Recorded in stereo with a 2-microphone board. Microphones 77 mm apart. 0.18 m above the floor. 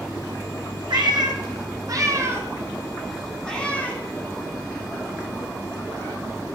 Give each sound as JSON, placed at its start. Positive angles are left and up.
{"t": 0.9, "sound": "a cat meowing", "side_deg": -80, "distance_m": 1.5}